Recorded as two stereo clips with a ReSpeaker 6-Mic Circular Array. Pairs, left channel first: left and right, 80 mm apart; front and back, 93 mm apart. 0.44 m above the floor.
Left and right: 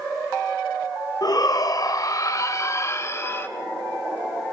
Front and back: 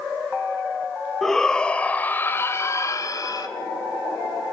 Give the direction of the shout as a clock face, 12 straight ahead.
9 o'clock.